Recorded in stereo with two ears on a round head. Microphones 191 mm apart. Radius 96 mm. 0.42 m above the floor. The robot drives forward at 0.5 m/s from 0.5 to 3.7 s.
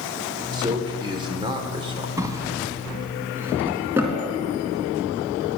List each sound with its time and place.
0.5 s a man speaking: 20° right (ahead or behind), 1.6 m
2.2 s a drawer: 15° right (ahead or behind), 1.6 m; by 4.2 s 10° right (ahead or behind), 2.5 m